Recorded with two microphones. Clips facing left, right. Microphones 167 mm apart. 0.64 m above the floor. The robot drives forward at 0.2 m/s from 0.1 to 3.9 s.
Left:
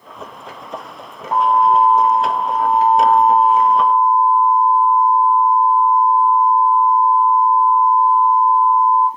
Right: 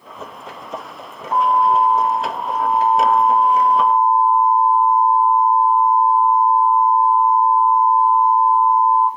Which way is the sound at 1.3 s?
40° left (ahead or behind).